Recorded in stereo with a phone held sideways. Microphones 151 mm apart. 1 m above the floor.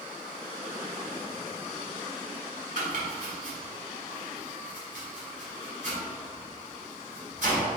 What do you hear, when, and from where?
2.8 s chopping: 55° right (ahead or behind), 1.9 m